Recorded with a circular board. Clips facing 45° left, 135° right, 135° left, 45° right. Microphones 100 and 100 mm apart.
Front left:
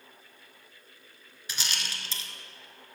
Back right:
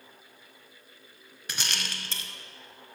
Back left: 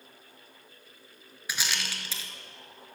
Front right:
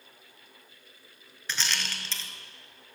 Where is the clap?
I don't hear a clap.